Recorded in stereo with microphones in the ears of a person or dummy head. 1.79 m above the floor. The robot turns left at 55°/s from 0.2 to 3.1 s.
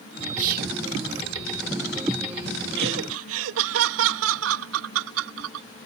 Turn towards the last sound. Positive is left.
turn(degrees=-80)